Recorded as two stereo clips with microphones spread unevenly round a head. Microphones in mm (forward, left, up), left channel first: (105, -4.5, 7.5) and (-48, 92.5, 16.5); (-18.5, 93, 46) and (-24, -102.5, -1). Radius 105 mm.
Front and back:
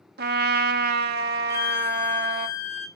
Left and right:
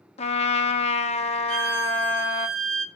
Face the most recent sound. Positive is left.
turn(degrees=-110)